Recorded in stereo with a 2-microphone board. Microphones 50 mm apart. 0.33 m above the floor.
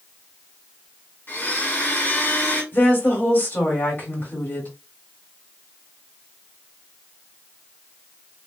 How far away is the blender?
About 1.8 m.